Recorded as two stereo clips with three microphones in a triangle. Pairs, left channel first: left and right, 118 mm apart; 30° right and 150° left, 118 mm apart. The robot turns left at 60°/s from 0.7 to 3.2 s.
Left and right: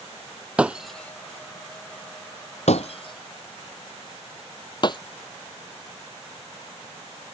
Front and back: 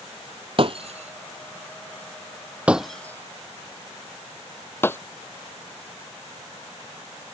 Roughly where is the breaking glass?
Behind.